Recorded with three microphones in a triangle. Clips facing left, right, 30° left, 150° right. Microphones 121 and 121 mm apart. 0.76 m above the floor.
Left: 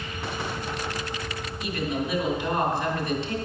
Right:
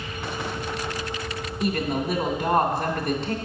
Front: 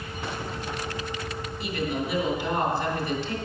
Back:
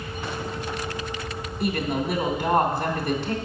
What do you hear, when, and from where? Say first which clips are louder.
1.6 s a woman speaking: right 4 dB, back 4 dB; 115° right, 2.5 m